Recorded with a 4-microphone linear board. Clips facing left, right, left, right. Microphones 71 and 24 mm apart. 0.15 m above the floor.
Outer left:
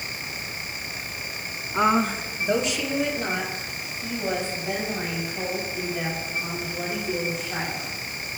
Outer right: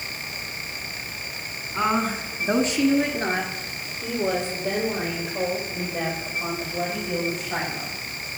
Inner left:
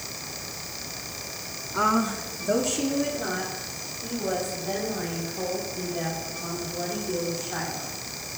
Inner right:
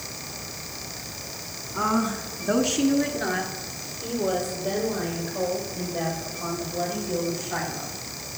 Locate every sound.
1.7 s a woman speaking: 20° left (ahead or behind), 1.1 m; by 8.0 s 80° right, 8.5 m